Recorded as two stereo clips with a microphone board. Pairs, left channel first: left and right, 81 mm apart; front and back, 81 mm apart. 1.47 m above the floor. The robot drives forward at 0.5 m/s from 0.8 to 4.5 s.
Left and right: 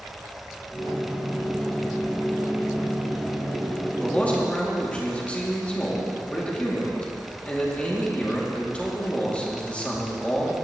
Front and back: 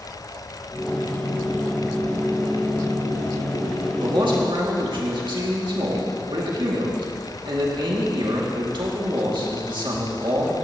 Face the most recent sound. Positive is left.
turn(degrees=165)